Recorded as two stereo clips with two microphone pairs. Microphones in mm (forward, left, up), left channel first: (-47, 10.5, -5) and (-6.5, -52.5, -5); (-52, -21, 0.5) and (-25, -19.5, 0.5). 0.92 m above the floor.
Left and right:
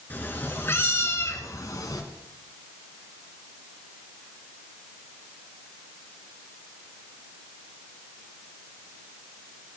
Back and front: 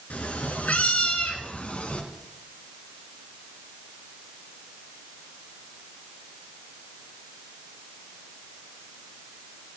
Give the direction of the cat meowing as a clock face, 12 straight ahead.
6 o'clock.